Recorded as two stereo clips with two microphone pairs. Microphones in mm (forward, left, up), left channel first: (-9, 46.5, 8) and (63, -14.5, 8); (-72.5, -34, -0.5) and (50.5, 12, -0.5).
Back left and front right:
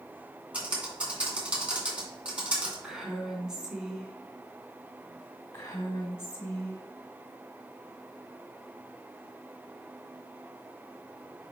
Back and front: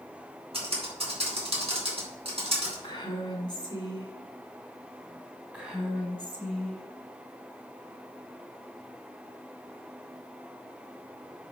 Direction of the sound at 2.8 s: 120° right.